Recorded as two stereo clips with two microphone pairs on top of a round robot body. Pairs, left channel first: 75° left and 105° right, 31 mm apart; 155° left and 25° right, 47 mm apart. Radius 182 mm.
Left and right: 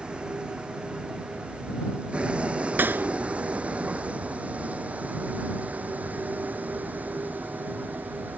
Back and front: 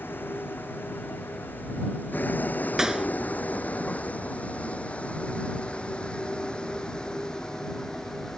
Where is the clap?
105° right.